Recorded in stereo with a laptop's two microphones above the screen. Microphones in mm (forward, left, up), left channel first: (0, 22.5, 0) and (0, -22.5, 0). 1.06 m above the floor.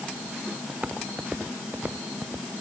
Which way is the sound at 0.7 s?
30° right (ahead or behind).